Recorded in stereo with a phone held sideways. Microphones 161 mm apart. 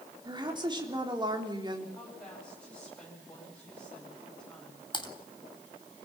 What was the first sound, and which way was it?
A woman speaking, 30° right (ahead or behind).